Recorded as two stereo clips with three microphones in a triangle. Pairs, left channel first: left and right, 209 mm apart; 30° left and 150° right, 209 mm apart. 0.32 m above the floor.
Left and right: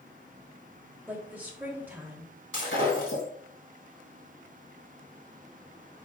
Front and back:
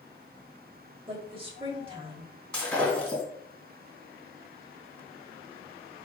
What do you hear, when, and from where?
1.1 s a woman speaking: 160° right, 1.5 m
2.5 s breaking glass: 115° left, 4 m